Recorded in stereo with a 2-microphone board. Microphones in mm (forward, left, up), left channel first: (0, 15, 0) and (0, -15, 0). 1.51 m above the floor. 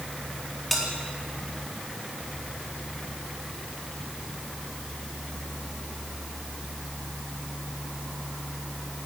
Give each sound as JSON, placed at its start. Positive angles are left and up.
{"t": 0.7, "sound": "a bell", "side_deg": 5, "distance_m": 4.0}